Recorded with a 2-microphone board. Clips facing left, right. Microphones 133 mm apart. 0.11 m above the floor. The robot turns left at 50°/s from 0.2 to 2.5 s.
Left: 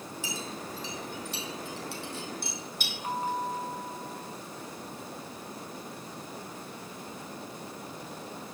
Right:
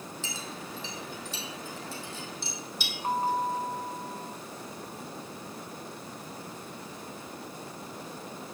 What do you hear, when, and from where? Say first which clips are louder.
0.2 s a clink: left 2 dB; 10° left (ahead or behind), 3 m; by 2.9 s 50° left (ahead or behind), 3 m
3.0 s a bell: right 4 dB; 35° right (ahead or behind), 2 m